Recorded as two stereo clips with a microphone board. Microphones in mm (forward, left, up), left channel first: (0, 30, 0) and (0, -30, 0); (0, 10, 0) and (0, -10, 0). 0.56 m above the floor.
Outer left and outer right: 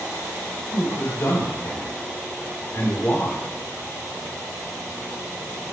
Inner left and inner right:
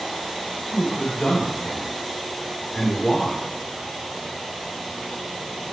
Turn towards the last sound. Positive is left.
turn(degrees=40)  # may be behind; listen again after turning